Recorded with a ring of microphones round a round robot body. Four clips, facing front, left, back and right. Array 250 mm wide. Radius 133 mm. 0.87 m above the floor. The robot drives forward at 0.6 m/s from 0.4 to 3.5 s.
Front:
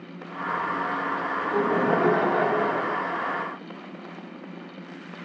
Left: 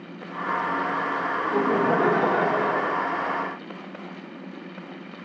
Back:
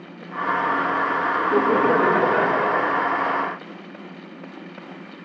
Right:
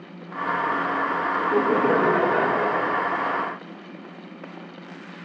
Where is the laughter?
160° right, 2.5 m; by 3.0 s 165° right, 3.5 m.